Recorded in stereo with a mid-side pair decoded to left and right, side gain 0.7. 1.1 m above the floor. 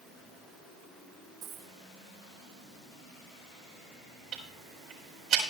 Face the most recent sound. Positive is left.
turn(degrees=-50)